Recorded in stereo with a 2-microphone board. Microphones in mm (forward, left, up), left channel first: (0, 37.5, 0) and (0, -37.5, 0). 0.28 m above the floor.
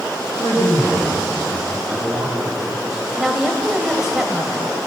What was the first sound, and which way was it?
A man speaking, 70° left (ahead or behind).